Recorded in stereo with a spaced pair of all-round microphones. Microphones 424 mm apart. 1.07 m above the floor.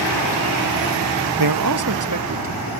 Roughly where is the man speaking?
Right.